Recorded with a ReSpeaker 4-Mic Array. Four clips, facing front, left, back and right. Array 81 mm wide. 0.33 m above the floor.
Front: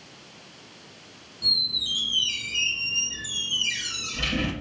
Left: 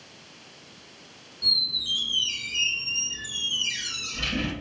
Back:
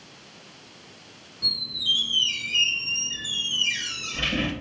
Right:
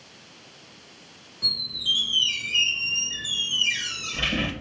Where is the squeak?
115° right, 0.6 m.